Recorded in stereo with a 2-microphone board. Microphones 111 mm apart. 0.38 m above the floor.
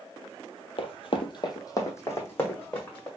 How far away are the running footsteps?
About 0.6 m.